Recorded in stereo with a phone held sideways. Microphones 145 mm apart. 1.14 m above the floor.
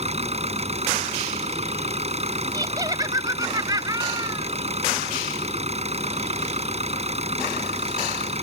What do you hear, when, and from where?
0.0 s an engine running: 45° right (ahead or behind)
2.5 s laughter: 25° right (ahead or behind)